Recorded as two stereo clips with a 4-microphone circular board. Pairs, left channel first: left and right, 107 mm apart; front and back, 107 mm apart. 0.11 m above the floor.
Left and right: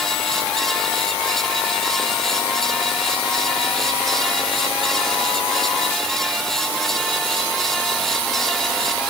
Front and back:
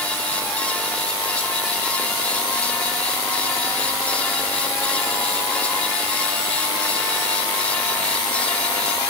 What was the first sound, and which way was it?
Only background noise.